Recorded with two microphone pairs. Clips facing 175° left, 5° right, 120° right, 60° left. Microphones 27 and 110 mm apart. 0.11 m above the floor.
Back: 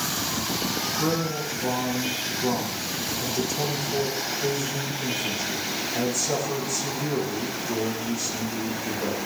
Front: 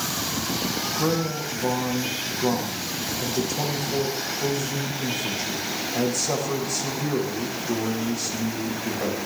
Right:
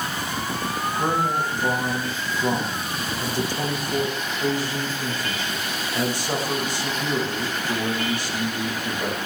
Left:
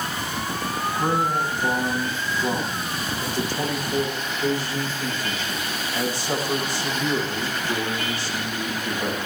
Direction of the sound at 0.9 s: 45° right.